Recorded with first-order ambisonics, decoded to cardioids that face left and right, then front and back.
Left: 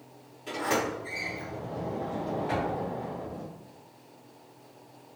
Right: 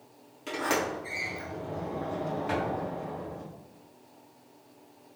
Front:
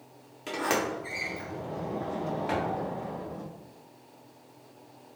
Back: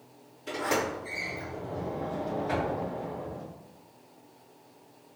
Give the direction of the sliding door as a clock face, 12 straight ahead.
1 o'clock.